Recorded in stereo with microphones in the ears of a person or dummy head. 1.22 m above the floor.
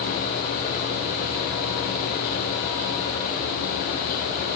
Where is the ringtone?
No ringtone in this recording.